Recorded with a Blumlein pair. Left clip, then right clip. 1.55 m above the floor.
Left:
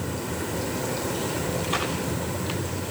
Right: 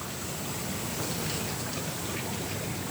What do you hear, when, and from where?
0.0 s a fan: 50° left